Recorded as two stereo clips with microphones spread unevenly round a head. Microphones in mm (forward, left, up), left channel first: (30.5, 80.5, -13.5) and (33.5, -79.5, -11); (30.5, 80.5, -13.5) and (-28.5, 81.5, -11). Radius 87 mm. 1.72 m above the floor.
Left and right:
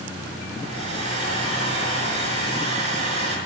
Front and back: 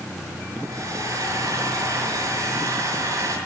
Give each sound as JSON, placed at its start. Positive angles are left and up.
{"t": 0.6, "sound": "a hair dryer", "azimuth_deg": -140, "distance_m": 5.0}